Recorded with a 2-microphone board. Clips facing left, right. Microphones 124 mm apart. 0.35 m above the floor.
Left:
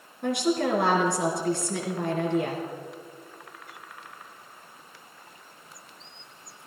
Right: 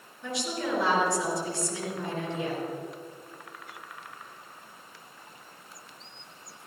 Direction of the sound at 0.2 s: 60° left (ahead or behind).